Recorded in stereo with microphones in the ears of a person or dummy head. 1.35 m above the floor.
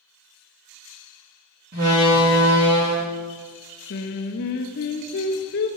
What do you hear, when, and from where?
1.7 s a door slam: 50° right (ahead or behind), 1.9 m
3.9 s singing: 55° left (ahead or behind), 0.6 m